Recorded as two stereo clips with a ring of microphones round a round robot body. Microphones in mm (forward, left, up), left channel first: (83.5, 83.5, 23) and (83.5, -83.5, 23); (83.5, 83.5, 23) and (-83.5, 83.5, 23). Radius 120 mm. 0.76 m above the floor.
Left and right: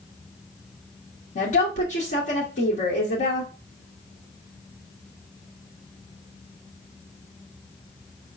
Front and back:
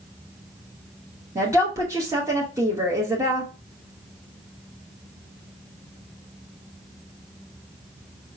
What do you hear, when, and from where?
1.4 s a woman speaking: 115° left, 1.2 m